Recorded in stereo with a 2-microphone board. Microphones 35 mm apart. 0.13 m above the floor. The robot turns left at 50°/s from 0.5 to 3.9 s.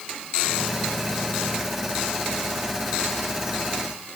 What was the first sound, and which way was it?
Only background noise.